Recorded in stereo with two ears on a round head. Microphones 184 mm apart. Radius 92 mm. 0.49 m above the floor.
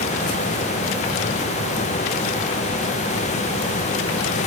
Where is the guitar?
No guitar in this recording.